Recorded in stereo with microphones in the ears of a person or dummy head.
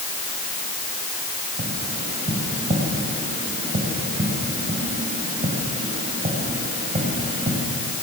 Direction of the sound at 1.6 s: 40° right (ahead or behind).